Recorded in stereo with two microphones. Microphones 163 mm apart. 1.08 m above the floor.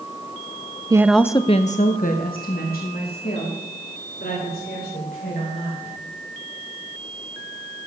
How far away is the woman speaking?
About 0.6 m.